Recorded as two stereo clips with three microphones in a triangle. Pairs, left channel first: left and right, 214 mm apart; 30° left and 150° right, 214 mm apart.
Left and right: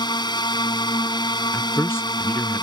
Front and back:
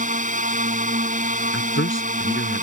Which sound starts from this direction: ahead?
A man speaking, at 1.5 s.